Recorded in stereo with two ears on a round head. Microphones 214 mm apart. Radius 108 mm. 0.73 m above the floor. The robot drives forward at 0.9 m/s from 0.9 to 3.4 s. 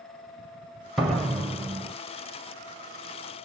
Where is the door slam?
Centre (ahead or behind), 2 m.